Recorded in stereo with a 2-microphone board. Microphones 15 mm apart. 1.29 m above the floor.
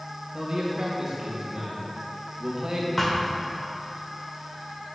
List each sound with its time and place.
0.3 s a man speaking: 55° right (ahead or behind), 1.9 m
3.0 s a thud: 20° left (ahead or behind), 1.5 m